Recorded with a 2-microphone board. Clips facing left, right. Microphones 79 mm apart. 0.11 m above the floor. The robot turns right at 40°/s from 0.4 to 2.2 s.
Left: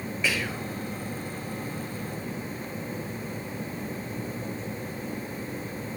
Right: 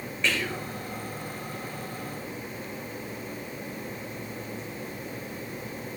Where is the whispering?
5° left (ahead or behind), 3 m; by 0.7 s 15° left (ahead or behind), 3 m.